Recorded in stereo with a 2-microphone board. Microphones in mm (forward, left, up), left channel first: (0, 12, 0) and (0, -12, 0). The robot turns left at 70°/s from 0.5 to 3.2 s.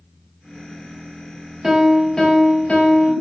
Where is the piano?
155° right, 1.1 m; by 3.1 s 100° left, 1.1 m.